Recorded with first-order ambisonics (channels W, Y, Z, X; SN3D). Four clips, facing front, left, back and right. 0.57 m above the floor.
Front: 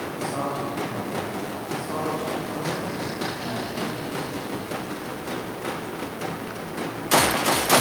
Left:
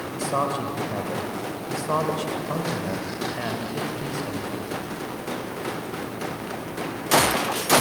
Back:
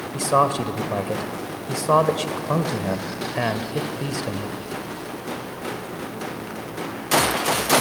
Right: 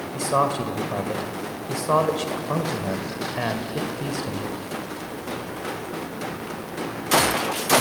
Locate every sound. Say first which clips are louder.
0.1 s a man speaking: right 3 dB, back 11 dB; 165° right, 1.9 m